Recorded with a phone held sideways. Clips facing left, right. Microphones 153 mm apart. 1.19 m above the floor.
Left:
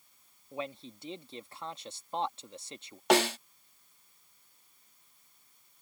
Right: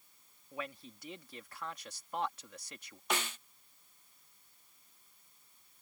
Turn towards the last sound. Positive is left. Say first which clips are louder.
# left 13 dB
turn(degrees=75)  # may be behind; listen again after turning